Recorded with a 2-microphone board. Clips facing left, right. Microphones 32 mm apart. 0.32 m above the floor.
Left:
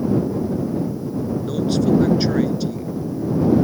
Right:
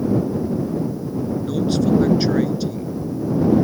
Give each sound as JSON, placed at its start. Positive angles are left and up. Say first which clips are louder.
{"t": 1.4, "sound": "a man speaking", "louder": "even", "side_deg": 0}